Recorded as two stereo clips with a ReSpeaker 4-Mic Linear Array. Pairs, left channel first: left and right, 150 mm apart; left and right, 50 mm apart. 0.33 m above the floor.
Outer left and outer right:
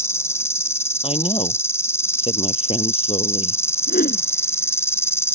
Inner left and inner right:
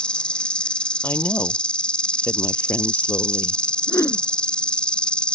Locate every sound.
0.0 s an insect: 20° left (ahead or behind)
1.0 s a woman speaking: 40° left (ahead or behind)
3.9 s a whoosh: 75° left (ahead or behind)